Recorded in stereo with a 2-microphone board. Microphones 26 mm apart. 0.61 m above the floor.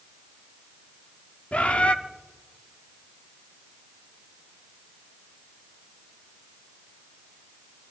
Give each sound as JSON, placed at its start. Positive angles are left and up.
{"t": 1.5, "sound": "a bird", "side_deg": 55, "distance_m": 0.9}